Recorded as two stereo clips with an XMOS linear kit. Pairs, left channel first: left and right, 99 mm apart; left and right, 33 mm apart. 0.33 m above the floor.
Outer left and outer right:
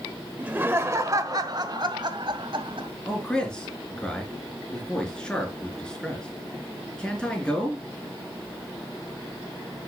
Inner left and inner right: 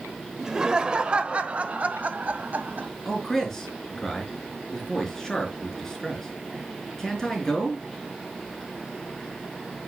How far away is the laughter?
About 1.3 m.